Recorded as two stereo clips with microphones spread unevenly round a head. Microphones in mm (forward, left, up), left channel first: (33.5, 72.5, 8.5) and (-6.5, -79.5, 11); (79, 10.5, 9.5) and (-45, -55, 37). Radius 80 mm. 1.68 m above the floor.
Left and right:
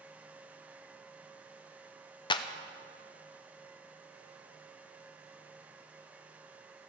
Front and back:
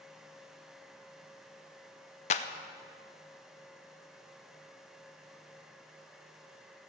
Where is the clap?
45° left, 0.5 m.